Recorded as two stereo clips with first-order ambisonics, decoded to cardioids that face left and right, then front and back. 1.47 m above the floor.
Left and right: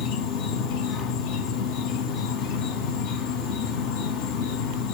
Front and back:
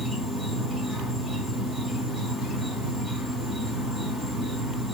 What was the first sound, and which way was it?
An insect, 95° left.